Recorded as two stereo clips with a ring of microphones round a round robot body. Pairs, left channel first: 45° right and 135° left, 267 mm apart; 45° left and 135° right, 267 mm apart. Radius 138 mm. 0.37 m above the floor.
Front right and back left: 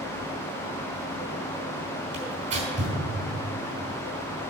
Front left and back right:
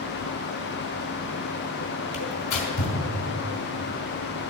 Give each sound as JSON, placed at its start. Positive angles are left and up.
{"t": 2.1, "sound": "tearing paper", "azimuth_deg": 70, "distance_m": 4.0}